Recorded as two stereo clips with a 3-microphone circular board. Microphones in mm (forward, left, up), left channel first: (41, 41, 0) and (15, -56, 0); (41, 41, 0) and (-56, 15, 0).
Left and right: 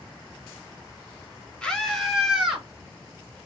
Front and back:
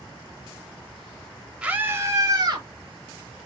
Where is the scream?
130° left, 0.9 m; by 2.7 s 170° left, 1.4 m.